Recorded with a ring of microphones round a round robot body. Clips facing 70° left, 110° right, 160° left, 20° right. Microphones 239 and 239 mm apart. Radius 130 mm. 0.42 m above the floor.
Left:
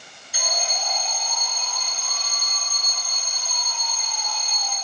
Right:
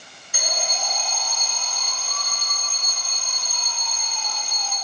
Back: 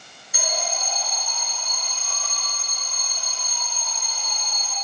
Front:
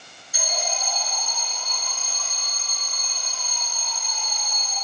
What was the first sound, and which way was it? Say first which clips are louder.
An alarm: even, back 1 dB; 160° right.